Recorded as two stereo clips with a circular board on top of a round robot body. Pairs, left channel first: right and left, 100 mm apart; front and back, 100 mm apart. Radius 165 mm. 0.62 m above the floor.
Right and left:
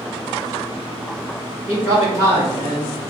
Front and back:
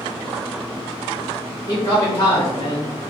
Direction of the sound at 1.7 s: 45° left.